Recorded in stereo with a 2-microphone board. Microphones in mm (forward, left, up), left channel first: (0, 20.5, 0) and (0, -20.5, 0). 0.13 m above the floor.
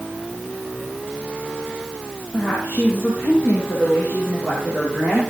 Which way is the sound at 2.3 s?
45° left (ahead or behind).